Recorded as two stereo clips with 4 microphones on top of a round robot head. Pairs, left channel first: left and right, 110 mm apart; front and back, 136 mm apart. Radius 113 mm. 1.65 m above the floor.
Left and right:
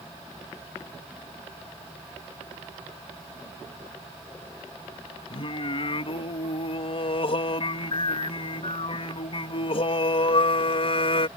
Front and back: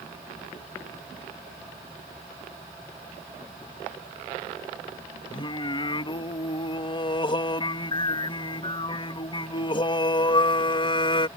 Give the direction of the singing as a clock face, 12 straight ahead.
10 o'clock.